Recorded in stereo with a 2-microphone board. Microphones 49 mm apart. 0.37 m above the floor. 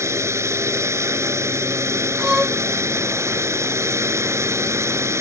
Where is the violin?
15° right (ahead or behind).